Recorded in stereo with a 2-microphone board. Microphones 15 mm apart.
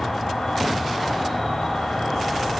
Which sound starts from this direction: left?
An insect, at 0.0 s.